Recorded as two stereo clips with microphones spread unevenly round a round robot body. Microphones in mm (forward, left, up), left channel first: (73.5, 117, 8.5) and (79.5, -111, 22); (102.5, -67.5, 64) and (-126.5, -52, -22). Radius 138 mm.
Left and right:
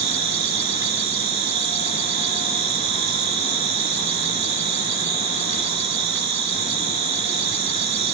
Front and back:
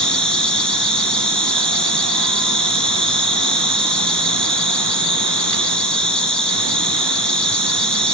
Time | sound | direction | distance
0.0 | an insect | 90° right | 1.8 m